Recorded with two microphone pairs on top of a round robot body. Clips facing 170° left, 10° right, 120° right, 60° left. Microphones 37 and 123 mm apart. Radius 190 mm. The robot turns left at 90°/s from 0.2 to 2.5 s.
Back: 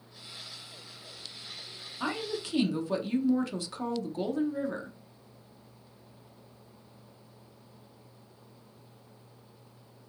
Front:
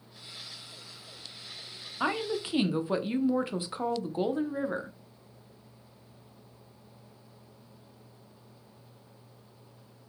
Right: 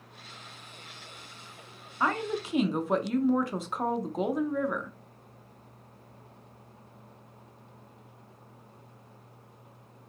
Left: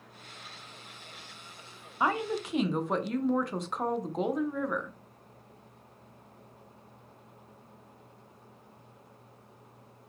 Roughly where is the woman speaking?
Ahead.